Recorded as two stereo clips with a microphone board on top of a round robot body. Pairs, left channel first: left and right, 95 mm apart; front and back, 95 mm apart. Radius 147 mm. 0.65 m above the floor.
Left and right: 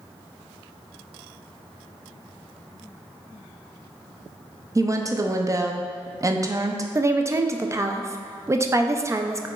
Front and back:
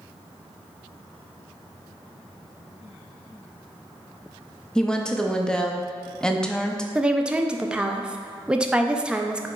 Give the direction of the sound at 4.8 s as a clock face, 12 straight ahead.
3 o'clock.